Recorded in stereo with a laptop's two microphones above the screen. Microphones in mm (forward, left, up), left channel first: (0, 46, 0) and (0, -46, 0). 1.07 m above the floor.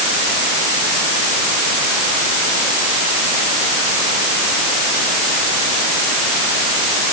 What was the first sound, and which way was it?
Only background noise.